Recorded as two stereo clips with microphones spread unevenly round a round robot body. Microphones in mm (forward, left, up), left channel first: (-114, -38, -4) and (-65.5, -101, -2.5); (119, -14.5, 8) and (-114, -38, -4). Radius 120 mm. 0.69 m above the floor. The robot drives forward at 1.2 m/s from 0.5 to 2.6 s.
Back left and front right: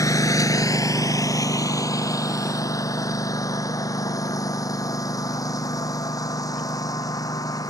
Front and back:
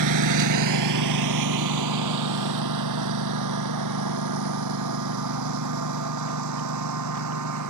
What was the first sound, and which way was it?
A lawn mower, 170° left.